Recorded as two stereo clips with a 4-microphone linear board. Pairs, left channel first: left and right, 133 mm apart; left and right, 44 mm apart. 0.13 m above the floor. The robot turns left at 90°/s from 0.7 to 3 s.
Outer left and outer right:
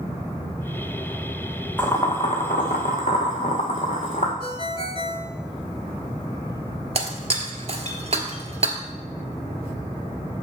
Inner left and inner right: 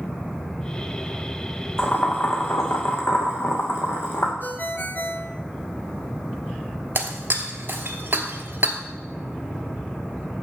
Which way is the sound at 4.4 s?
50° left (ahead or behind).